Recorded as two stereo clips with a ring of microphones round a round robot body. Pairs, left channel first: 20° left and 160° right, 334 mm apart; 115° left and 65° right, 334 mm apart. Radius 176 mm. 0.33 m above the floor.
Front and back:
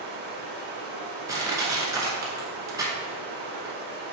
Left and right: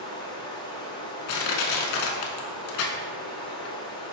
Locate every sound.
0.0 s running water: 175° left, 1.0 m
1.3 s crushing: 120° left, 0.8 m